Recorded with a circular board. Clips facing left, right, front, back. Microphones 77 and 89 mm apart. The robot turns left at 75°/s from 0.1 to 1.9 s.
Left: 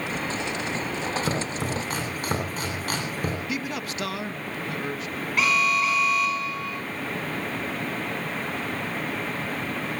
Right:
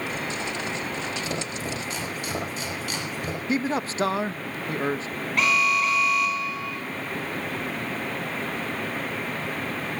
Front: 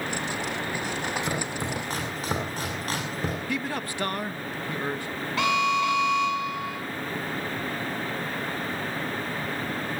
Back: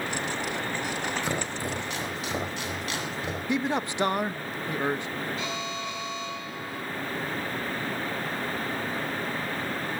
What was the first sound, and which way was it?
Chopping, 100° left.